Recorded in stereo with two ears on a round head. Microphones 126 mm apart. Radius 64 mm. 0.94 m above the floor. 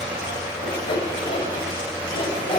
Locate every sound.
0.6 s sawing: 35° left (ahead or behind), 3 m